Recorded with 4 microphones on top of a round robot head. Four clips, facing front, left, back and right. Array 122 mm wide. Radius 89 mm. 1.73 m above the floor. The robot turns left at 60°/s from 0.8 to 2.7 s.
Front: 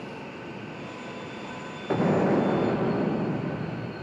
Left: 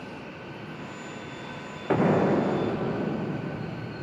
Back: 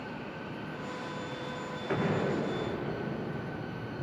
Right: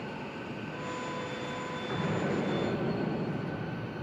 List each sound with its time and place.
1.9 s an explosion: 65° left, 1.6 m; by 3.9 s 15° left, 1.6 m